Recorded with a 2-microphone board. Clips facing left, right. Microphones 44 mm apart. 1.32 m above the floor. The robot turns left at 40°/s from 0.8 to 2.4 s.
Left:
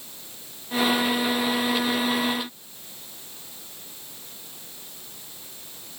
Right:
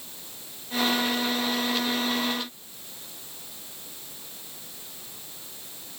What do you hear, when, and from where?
Only background noise.